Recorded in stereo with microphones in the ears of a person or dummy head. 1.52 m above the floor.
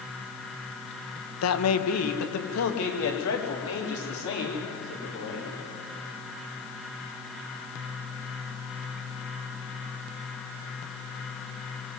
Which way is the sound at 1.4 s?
85° left.